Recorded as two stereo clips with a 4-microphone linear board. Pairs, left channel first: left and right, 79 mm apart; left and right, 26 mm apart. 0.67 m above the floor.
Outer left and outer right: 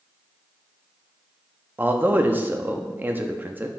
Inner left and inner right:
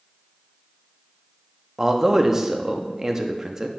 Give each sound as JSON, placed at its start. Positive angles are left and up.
{"t": 1.8, "sound": "a man speaking", "side_deg": -20, "distance_m": 0.7}